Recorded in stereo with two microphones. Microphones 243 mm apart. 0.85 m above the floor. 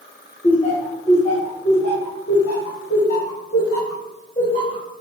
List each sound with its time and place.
0.4 s laughter: 25° left (ahead or behind), 0.9 m; by 4.8 s 30° left (ahead or behind), 3.5 m